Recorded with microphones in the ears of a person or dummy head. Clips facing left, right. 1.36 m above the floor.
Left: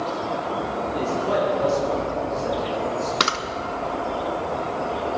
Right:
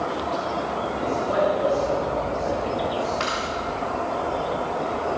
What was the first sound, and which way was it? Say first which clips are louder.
A man speaking: left 1 dB; 75° left (ahead or behind).